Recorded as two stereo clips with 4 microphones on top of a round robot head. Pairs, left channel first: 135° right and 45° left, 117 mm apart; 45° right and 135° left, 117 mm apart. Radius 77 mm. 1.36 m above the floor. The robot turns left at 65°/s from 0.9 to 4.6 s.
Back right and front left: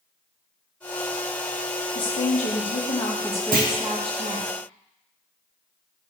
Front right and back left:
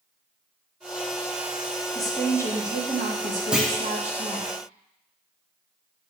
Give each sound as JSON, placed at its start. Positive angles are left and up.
{"t": 1.9, "sound": "a woman speaking", "azimuth_deg": -130, "distance_m": 2.0}
{"t": 3.5, "sound": "a clunk", "azimuth_deg": 50, "distance_m": 1.2}